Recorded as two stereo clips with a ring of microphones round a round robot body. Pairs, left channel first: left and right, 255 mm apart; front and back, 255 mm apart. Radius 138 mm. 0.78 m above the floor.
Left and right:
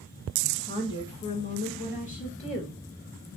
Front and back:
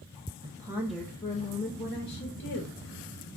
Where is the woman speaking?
160° left, 0.7 m; by 2.8 s 30° left, 1.4 m.